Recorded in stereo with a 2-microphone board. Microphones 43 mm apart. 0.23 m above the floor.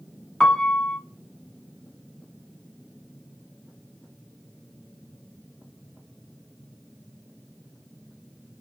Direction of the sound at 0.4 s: 15° left (ahead or behind).